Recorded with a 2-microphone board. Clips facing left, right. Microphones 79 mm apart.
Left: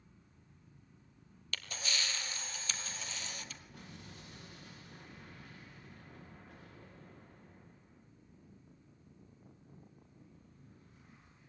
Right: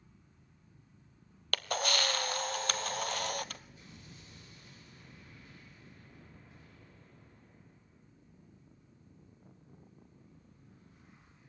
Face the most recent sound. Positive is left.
turn(degrees=80)